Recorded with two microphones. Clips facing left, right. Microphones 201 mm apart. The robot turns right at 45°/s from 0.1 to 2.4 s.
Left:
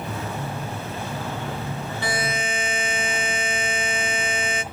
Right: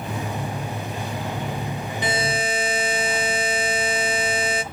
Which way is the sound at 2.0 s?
20° right (ahead or behind).